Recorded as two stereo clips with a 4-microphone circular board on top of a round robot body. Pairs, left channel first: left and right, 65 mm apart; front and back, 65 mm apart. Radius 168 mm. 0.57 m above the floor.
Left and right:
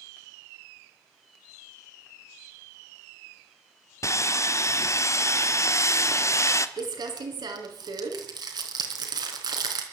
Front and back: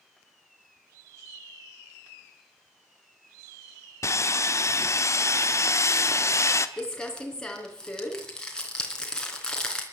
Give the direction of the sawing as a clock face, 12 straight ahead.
10 o'clock.